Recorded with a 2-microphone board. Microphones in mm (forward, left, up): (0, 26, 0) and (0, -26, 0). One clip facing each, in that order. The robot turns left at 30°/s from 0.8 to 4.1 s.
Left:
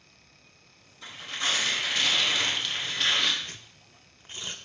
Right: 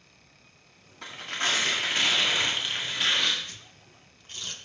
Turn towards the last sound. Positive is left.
turn(degrees=20)  # may be behind; listen again after turning